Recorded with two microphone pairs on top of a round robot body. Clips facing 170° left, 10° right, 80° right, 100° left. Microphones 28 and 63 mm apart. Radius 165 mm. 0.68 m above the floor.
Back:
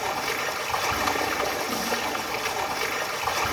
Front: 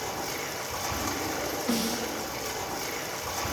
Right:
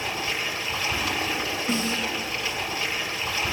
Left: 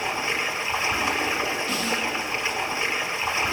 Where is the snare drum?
20° right, 6 m.